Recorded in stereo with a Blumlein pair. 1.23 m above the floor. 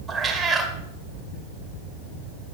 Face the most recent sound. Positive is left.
turn(degrees=-10)